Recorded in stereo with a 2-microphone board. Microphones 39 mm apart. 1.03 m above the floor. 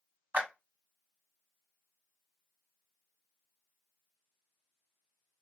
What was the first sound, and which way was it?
A clap, 55° right (ahead or behind).